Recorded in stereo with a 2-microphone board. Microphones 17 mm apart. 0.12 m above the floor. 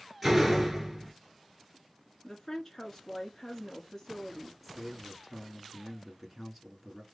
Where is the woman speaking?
10° left (ahead or behind), 1.2 m.